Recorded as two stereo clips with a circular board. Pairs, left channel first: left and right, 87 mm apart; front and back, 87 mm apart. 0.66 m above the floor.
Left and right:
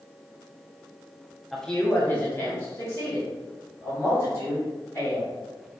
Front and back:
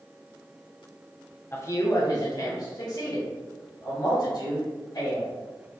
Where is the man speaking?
Straight ahead, 0.5 m; by 5.3 s 35° left, 3.5 m.